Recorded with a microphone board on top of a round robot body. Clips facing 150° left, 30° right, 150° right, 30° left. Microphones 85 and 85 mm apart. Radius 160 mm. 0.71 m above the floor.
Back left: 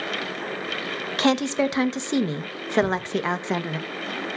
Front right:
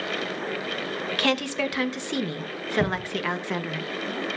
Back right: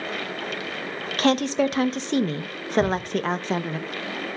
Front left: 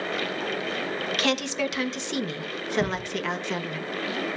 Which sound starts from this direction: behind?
A woman speaking, at 1.2 s.